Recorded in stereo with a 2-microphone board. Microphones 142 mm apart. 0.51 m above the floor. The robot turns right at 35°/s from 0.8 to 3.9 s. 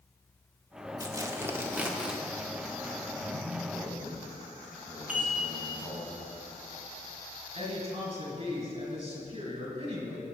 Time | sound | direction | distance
1.0 | tearing paper | 50° right | 1.0 m
3.2 | a man speaking | 25° right (ahead or behind) | 3.5 m
5.1 | dishes clattering | 10° right (ahead or behind) | 3 m
7.5 | a woman speaking | 35° right (ahead or behind) | 3.5 m